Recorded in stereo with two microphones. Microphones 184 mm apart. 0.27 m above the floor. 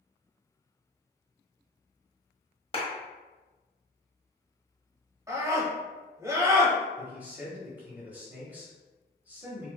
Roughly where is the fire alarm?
I don't hear a fire alarm.